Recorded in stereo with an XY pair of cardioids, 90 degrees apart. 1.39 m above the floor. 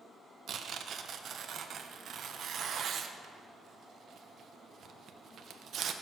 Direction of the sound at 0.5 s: 65° right.